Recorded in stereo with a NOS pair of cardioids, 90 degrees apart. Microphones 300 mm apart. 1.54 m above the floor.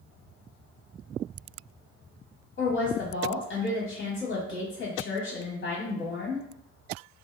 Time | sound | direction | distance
2.6 | a woman speaking | 45° left | 1.2 m